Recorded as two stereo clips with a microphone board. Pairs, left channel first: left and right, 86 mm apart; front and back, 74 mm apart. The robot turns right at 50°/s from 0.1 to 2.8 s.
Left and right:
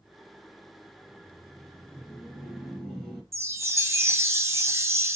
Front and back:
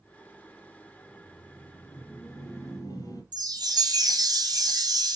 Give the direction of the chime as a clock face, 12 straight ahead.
5 o'clock.